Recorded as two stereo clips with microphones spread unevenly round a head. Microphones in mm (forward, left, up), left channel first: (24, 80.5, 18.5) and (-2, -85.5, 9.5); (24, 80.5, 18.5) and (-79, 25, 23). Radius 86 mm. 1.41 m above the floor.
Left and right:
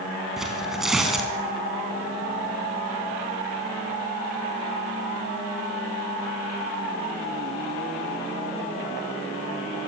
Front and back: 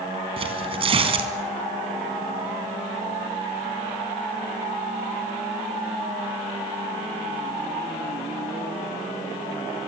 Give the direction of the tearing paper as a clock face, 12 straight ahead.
6 o'clock.